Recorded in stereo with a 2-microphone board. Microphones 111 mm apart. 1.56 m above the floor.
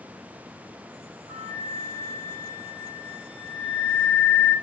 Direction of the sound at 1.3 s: 70° left (ahead or behind).